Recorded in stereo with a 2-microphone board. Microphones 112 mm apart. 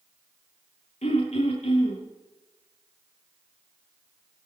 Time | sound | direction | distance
1.0 | throat clearing | 75° left (ahead or behind) | 9 m